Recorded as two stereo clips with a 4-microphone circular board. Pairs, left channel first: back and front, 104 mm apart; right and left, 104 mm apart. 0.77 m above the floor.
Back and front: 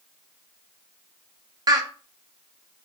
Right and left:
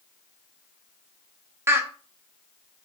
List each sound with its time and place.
1.7 s laughter: 35° left, 0.6 m